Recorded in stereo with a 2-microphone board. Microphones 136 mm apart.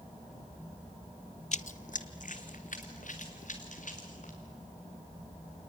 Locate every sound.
1.5 s running footsteps: 65° left (ahead or behind), 0.5 m